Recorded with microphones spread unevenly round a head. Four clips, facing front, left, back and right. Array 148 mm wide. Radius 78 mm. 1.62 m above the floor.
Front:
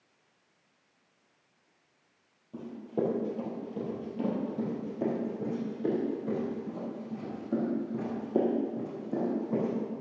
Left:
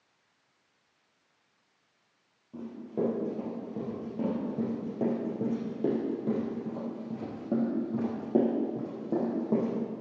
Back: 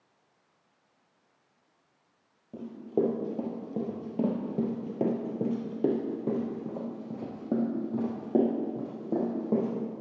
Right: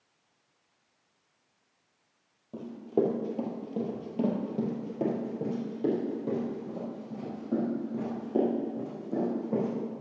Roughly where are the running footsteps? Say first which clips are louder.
Right 5 dB, back 4 dB; behind right.